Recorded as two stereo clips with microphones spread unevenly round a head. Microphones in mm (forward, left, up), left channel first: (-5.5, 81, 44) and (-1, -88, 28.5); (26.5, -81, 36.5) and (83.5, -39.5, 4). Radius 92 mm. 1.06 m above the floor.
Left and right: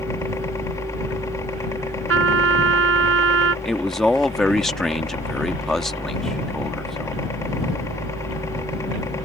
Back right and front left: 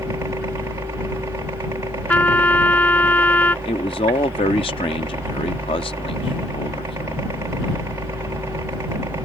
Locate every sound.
0.0 s a helicopter: 20° left
2.1 s a trumpet: 80° right
3.6 s a man speaking: straight behind